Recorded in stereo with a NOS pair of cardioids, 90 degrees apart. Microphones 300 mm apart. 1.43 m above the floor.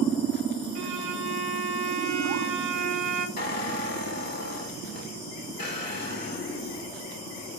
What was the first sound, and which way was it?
A violin, 55° right.